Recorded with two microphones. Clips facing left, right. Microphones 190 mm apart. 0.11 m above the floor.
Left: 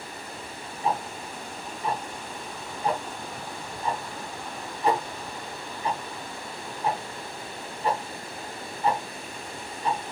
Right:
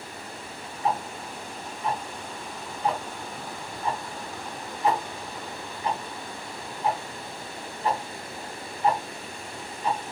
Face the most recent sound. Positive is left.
turn(degrees=30)  # may be behind; listen again after turning